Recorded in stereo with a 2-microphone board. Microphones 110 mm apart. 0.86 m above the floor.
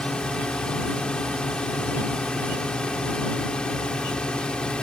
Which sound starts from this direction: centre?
A drone, at 0.0 s.